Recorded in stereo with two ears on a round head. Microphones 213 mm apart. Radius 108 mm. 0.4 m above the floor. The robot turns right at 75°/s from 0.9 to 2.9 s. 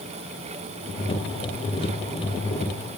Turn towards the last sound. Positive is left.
No sound to turn to.